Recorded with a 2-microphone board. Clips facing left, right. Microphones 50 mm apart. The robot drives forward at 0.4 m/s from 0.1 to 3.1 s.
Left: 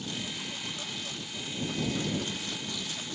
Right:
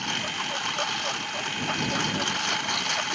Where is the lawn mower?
65° right (ahead or behind); by 3.2 s 70° right (ahead or behind).